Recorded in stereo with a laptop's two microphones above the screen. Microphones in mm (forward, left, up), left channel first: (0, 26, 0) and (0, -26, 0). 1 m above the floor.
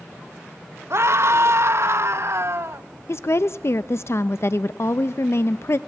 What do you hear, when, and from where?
0.9 s a scream: 55° right (ahead or behind), 1.2 m
3.1 s a woman speaking: 55° left (ahead or behind), 0.5 m